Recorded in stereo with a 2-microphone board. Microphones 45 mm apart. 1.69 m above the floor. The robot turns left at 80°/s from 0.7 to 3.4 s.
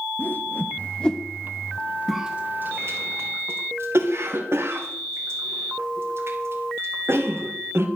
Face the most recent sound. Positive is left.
turn(degrees=-75)  # may be behind; listen again after turning